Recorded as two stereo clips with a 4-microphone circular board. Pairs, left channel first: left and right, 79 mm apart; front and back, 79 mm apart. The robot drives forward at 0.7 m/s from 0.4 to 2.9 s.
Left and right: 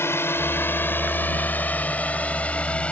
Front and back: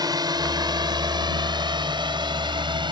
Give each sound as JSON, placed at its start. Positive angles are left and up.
{"t": 0.0, "sound": "a drone", "azimuth_deg": 150}